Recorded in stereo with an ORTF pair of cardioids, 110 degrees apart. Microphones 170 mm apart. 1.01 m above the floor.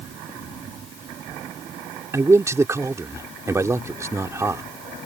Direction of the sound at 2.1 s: 15° right.